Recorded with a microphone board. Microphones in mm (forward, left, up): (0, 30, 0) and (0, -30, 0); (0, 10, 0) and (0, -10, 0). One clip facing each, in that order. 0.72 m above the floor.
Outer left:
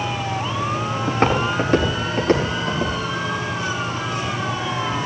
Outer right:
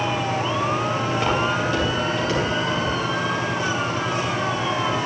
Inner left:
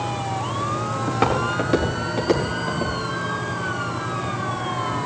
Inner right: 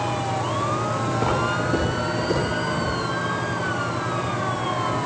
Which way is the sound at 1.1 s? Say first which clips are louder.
Outer left 5 dB, inner left 3 dB; 50° left (ahead or behind).